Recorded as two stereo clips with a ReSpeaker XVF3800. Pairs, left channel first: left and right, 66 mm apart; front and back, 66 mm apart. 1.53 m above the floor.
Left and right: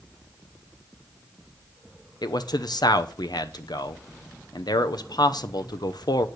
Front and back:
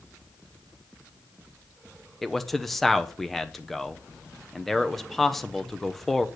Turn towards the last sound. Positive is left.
turn(degrees=85)